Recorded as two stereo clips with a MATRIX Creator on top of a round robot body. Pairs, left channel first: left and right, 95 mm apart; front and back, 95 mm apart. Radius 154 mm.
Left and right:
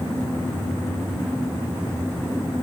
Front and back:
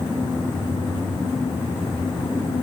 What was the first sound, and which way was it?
Only background noise.